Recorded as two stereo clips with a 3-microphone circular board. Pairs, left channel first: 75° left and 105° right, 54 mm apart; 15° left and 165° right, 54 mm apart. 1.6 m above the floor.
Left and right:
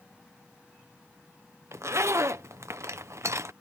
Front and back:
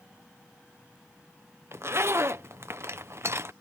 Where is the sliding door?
I don't hear a sliding door.